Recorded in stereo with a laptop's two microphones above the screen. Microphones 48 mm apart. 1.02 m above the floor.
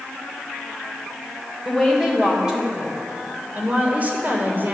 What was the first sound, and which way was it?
A woman speaking, 5° right (ahead or behind).